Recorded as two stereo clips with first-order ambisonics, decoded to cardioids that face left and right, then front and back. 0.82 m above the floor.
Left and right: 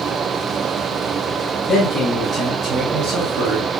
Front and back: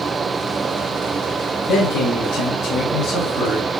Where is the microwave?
No microwave in this recording.